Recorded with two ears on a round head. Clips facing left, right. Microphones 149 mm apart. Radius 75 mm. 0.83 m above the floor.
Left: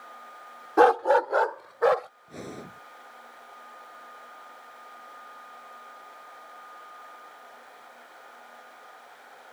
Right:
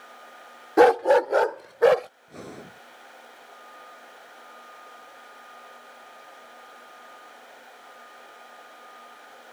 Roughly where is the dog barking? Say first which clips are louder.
Right 3 dB; centre.